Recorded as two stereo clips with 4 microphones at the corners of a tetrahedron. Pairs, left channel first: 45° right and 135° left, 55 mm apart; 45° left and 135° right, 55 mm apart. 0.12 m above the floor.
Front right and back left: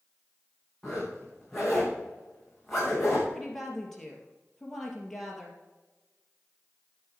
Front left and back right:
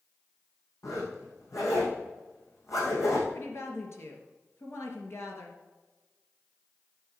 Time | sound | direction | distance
0.8 | a zipper | 40° left | 4 m
3.3 | a woman speaking | 40° left | 2.5 m